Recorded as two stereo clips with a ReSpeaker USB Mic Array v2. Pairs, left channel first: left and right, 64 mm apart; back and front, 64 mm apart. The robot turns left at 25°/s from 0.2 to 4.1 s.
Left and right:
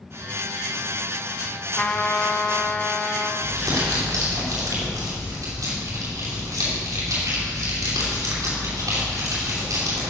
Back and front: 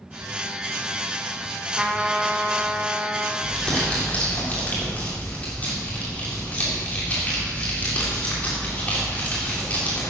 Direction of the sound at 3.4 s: 100° right.